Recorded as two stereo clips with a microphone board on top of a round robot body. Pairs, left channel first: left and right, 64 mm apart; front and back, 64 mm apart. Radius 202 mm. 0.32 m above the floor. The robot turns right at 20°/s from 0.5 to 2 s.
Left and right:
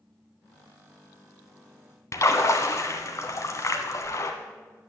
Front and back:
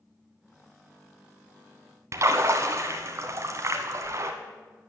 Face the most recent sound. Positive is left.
turn(degrees=135)